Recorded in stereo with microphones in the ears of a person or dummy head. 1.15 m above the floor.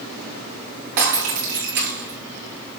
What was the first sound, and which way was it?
Breaking glass, 60° right (ahead or behind).